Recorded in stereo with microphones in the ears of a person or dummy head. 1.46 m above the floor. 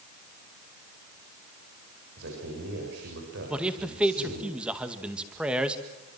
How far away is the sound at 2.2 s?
About 6.5 m.